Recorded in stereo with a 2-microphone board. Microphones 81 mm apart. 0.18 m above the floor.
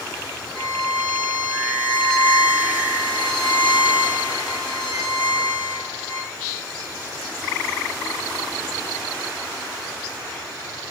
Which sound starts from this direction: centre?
A violin, at 0.6 s.